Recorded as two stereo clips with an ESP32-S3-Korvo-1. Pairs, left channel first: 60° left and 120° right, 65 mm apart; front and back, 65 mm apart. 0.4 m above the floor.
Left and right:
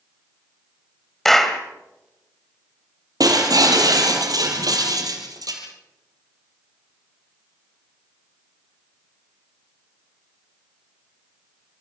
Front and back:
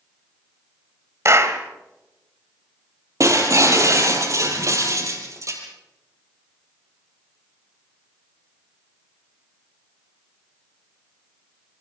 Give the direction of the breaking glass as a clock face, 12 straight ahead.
5 o'clock.